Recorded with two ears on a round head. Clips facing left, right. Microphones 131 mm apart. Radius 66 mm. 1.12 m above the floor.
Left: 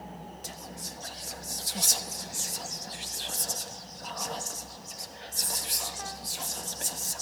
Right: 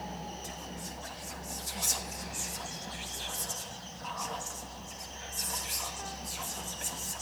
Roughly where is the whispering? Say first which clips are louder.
Right 1 dB; left.